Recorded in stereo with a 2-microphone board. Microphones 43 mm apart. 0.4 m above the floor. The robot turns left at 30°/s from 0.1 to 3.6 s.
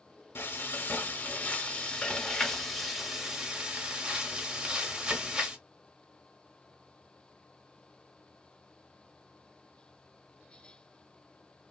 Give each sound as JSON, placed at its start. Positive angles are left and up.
{"t": 0.3, "sound": "frying", "azimuth_deg": 75, "distance_m": 1.0}